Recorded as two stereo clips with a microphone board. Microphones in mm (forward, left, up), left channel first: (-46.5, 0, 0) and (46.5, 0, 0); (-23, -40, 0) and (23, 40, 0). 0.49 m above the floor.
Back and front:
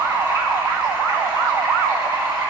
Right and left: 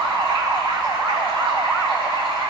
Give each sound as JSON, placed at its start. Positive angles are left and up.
{"t": 0.0, "sound": "running water", "azimuth_deg": 45, "distance_m": 4.5}